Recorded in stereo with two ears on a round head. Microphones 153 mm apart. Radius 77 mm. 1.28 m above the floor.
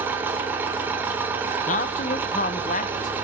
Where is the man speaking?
45° left (ahead or behind), 0.8 m.